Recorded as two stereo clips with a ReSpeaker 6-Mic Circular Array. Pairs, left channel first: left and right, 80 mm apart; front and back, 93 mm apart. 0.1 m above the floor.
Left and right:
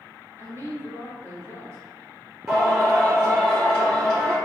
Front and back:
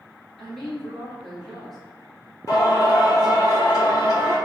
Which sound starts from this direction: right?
A woman speaking, at 0.4 s.